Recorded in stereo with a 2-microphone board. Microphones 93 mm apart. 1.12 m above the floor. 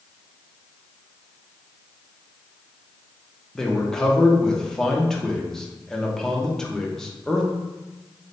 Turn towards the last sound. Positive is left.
turn(degrees=5)  # may be behind; listen again after turning